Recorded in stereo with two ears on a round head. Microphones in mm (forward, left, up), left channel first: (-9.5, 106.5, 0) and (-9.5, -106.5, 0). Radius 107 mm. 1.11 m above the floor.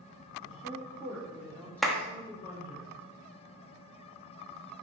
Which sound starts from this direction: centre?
A clap, at 1.8 s.